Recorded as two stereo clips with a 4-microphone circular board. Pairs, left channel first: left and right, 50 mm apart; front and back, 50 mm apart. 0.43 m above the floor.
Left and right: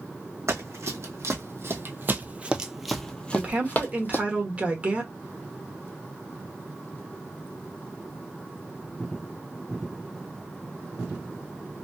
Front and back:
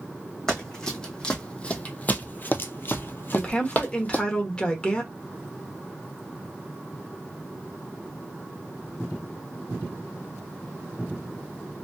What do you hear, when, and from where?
0.5 s running footsteps: 80° right, 1.3 m; by 4.2 s 55° left, 0.9 m
3.3 s a woman speaking: 55° right, 1.1 m